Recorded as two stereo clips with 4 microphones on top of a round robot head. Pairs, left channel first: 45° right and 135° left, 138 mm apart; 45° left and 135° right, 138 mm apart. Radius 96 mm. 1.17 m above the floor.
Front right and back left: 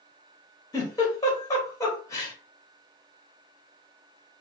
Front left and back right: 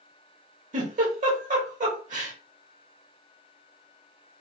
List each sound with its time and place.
0.7 s a giggle: 110° right, 2.5 m